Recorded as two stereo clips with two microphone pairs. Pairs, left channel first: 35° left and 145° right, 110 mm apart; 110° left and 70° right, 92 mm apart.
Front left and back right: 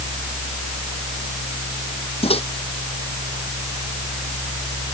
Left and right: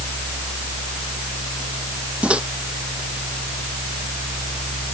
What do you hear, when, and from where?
2.2 s a microwave: 10° left